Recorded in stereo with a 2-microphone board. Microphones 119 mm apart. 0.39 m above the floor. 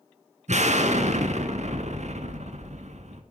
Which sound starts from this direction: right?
An explosion, at 0.5 s.